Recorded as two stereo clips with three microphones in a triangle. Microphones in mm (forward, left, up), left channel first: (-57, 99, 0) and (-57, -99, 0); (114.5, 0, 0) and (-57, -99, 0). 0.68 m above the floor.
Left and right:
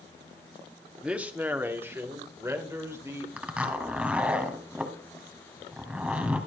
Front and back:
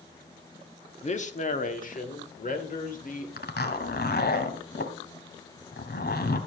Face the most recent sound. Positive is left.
turn(degrees=-5)